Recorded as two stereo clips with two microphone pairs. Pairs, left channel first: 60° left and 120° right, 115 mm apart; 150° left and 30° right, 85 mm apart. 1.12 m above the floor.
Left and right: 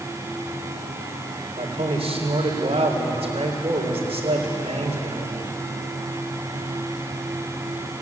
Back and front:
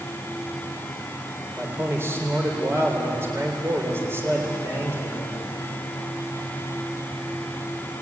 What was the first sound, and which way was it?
A man speaking, 90° right.